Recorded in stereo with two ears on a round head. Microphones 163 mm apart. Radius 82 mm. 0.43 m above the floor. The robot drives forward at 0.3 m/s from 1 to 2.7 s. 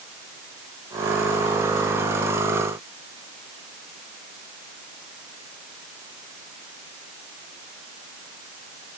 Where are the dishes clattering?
No dishes clattering in this recording.